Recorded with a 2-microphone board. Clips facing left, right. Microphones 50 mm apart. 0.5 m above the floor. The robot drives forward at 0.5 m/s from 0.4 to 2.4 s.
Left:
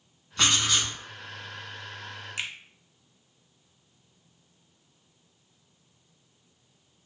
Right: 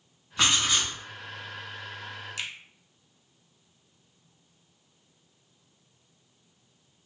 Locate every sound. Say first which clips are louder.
0.4 s writing: even; 10° right (ahead or behind), 1.1 m; by 0.9 s 15° right (ahead or behind), 0.8 m
2.4 s a finger snap: left 2 dB; 25° left (ahead or behind), 0.5 m